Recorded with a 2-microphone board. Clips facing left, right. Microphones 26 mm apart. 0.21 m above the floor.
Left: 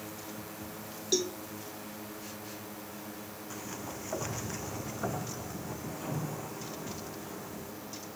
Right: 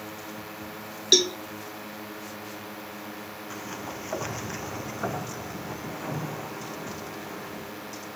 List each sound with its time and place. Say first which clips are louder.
0.0 s a drone: right 5 dB; 30° right (ahead or behind); by 8.2 s 45° right (ahead or behind)
1.1 s a cowbell: right 10 dB; 70° right (ahead or behind)
3.5 s a sliding door: right 4 dB; 25° right (ahead or behind)